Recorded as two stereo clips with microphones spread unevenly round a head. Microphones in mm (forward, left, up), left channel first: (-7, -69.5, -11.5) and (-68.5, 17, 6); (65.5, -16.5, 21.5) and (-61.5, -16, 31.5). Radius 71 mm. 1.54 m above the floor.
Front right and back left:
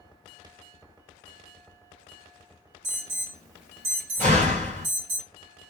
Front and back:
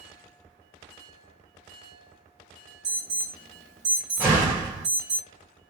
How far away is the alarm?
About 1.5 m.